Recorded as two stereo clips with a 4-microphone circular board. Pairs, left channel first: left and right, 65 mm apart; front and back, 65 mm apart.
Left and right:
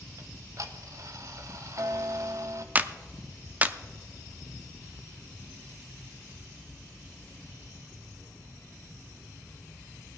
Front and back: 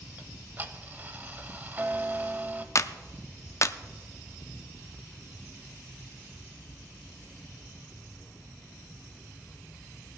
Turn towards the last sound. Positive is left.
turn(degrees=-30)